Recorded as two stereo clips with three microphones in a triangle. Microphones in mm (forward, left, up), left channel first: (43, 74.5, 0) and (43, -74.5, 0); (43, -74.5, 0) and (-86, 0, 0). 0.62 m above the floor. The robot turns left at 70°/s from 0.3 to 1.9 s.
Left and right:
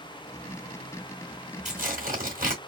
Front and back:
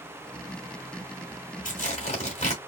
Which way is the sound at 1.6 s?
55° right.